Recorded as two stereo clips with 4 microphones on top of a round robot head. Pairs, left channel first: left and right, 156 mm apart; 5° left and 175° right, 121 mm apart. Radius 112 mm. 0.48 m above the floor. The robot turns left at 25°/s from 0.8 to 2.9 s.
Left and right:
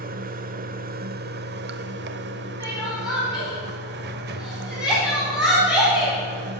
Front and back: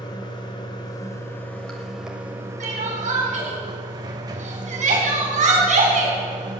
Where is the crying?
165° right, 4 m; by 6.6 s 175° right, 4 m.